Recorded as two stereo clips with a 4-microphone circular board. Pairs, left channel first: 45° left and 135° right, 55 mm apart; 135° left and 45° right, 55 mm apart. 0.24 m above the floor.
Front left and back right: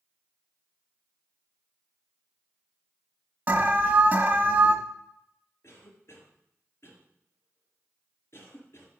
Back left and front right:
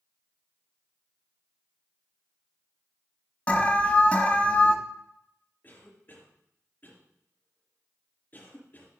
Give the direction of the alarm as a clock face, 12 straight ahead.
6 o'clock.